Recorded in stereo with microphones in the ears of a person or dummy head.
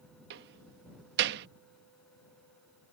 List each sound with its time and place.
0.3 s a door slam: 60° right (ahead or behind)